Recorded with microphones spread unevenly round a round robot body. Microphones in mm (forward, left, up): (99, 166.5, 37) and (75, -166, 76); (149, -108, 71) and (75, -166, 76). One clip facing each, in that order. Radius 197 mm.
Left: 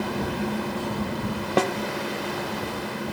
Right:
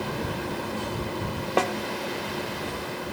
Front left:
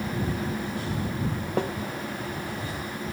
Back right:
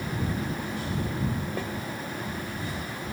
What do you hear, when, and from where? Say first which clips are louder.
1.6 s a snare drum: left 2 dB, front left 6 dB; 105° left